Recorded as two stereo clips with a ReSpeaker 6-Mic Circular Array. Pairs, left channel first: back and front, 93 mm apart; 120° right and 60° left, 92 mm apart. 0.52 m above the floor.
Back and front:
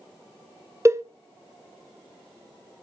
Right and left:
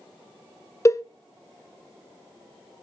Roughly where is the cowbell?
Ahead right.